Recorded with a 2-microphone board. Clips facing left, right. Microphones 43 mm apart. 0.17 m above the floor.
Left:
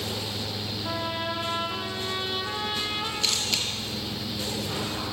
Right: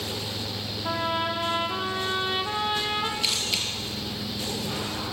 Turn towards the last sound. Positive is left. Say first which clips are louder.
# even
turn(degrees=-10)  # may be behind; listen again after turning